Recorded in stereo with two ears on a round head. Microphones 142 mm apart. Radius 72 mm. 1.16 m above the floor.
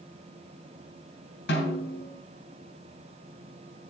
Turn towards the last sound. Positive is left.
turn(degrees=75)  # may be behind; listen again after turning